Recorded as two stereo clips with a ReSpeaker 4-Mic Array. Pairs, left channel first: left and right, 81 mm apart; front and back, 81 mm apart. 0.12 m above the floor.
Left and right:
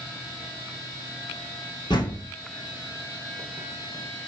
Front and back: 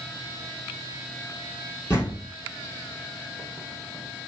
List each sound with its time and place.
1.9 s a door slam: 50° left, 3.5 m